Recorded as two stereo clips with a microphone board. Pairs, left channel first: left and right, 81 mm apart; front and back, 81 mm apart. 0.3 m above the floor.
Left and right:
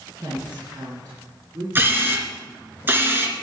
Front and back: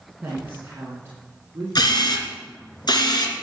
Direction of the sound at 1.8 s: 25° right.